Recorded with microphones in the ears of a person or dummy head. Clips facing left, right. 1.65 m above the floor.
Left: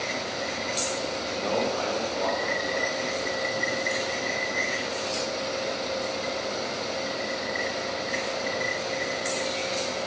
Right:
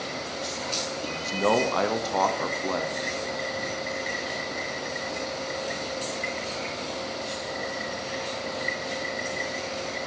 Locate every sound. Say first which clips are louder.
1.1 s a man speaking: right 8 dB; 75° right (ahead or behind), 0.7 m